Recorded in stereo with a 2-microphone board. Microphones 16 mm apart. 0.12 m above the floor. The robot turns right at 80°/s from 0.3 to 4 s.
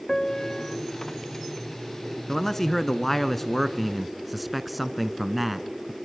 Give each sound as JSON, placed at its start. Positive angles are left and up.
{"t": 0.1, "sound": "a piano", "azimuth_deg": 45, "distance_m": 0.8}
{"t": 2.3, "sound": "a man speaking", "side_deg": 20, "distance_m": 1.1}